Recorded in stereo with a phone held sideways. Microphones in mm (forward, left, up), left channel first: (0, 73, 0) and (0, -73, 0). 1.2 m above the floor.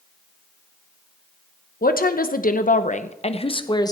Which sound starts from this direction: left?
A woman speaking, at 1.8 s.